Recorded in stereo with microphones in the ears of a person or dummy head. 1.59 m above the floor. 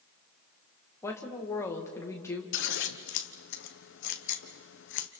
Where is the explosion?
No explosion in this recording.